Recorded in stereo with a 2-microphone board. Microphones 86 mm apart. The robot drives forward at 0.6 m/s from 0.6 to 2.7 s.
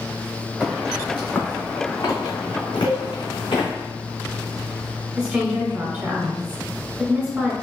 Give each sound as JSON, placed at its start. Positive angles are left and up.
{"t": 0.6, "sound": "footsteps", "side_deg": 5, "distance_m": 1.8}
{"t": 2.8, "sound": "a cowbell", "side_deg": -30, "distance_m": 0.9}
{"t": 5.2, "sound": "a woman speaking", "side_deg": -15, "distance_m": 1.1}